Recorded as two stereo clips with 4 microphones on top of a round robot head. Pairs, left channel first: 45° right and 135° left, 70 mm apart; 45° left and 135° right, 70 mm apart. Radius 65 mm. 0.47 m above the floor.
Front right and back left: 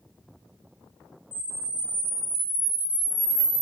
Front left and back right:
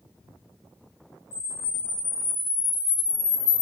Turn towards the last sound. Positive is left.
turn(degrees=65)